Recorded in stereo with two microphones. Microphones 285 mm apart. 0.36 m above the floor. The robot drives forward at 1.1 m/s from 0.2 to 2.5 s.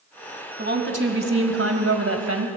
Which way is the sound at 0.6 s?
40° right (ahead or behind).